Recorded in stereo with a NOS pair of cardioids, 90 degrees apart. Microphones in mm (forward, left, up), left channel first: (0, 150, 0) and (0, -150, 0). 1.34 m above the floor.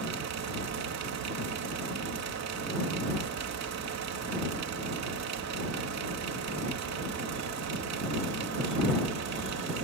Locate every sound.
0.0 s a fan: 65° right